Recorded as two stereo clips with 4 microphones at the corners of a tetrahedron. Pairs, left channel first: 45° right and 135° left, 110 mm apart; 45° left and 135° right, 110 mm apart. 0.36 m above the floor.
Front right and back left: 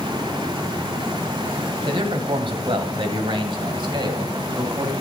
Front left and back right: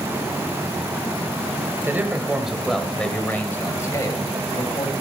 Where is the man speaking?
160° left, 1.4 m; by 4.9 s 85° left, 1.9 m.